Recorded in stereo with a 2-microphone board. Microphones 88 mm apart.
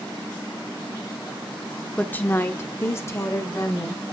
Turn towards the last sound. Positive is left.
turn(degrees=30)  # may be behind; listen again after turning